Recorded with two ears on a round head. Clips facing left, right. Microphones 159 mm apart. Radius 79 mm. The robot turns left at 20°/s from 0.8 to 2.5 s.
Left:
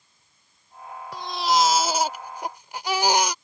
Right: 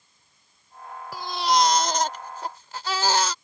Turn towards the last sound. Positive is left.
turn(degrees=15)  # may be behind; listen again after turning